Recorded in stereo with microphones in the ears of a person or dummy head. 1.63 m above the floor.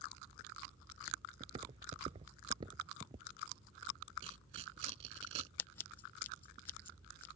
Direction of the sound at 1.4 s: 25° right (ahead or behind).